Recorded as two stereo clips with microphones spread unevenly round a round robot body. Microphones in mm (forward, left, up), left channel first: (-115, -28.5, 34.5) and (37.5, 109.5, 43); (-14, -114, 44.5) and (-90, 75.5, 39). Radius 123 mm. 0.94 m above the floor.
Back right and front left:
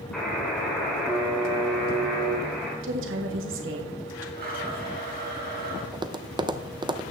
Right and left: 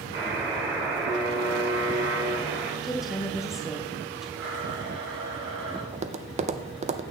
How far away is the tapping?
About 0.7 m.